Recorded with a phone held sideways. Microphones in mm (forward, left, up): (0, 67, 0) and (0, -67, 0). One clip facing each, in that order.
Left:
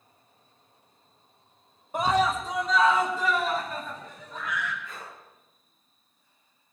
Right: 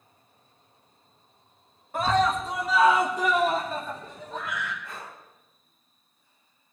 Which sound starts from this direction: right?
Breathing, at 4.8 s.